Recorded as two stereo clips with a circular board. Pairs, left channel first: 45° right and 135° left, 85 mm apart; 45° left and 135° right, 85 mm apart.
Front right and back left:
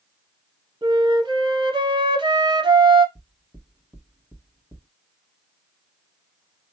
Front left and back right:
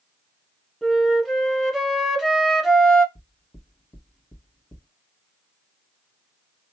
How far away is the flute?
About 1.0 m.